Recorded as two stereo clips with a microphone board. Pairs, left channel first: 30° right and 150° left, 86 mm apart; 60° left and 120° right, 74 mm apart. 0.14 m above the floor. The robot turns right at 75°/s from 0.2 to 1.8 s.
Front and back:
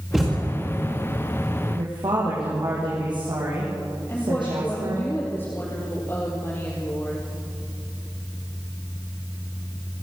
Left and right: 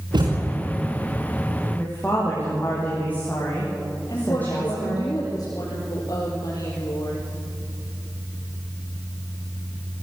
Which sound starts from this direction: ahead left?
A woman speaking, at 4.1 s.